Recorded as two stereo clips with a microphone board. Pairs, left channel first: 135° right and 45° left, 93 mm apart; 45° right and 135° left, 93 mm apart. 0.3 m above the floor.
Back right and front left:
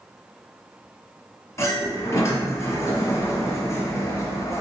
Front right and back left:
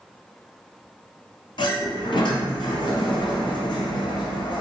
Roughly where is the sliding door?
Right.